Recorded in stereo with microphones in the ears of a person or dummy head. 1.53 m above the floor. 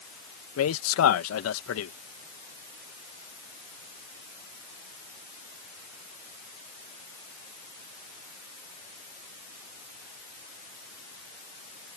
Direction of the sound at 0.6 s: 80° left.